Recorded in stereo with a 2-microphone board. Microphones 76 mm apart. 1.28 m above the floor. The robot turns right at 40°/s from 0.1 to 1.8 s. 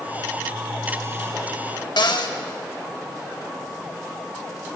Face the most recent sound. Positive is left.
turn(degrees=70)  # may be behind; listen again after turning